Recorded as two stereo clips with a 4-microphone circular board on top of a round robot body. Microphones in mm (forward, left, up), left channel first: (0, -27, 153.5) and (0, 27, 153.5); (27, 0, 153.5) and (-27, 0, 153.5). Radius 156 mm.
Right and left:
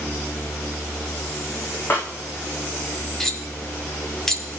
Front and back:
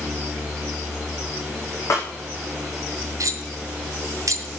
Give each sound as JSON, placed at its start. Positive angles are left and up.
{"t": 1.9, "sound": "a snare drum", "azimuth_deg": -35, "distance_m": 4.5}
{"t": 3.2, "sound": "cutlery clinking", "azimuth_deg": -170, "distance_m": 2.0}